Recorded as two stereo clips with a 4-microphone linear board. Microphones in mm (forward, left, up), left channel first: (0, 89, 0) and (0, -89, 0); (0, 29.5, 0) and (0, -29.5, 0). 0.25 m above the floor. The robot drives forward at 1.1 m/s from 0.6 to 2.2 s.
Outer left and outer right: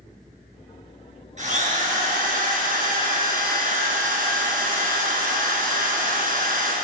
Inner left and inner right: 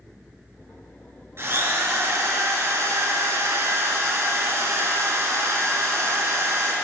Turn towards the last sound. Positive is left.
turn(degrees=-60)  # may be behind; listen again after turning